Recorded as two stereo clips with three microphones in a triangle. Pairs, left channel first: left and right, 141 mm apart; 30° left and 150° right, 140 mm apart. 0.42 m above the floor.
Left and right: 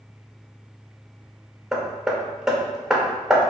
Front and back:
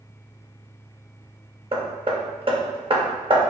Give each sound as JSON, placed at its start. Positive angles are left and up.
{"t": 1.7, "sound": "hammering", "azimuth_deg": -175, "distance_m": 0.5}